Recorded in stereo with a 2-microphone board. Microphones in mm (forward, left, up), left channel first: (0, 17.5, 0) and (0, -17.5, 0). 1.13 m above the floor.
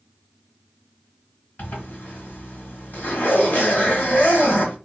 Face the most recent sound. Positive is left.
turn(degrees=65)  # may be behind; listen again after turning